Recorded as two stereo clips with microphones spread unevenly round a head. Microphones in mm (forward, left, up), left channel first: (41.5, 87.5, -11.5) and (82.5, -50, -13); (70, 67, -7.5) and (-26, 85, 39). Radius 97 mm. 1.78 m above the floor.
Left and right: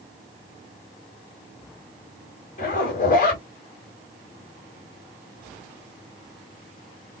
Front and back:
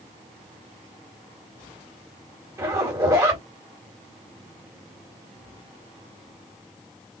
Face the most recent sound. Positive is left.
turn(degrees=145)